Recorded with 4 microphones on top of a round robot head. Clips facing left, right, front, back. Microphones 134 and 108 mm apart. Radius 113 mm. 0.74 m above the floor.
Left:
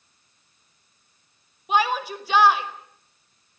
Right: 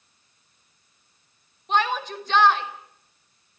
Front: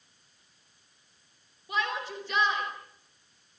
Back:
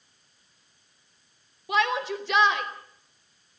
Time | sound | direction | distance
1.7 | a shout | 170° left | 4.5 m